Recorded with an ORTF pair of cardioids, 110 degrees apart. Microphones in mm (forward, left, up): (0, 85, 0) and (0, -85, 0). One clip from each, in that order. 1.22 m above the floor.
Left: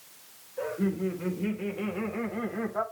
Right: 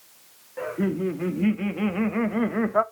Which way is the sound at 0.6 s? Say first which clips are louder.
Right 3 dB; 65° right.